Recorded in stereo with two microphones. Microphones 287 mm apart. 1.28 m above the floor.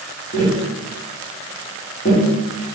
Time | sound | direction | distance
0.3 | tapping | 50° left (ahead or behind) | 1.3 m